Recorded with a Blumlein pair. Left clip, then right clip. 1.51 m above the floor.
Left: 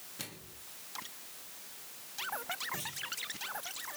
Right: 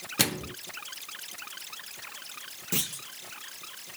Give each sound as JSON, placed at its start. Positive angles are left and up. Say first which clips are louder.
{"t": 0.2, "sound": "a microwave", "louder": "right 19 dB", "azimuth_deg": -40, "distance_m": 0.6}
{"t": 2.7, "sound": "a clunk", "louder": "right 6 dB", "azimuth_deg": -45, "distance_m": 2.0}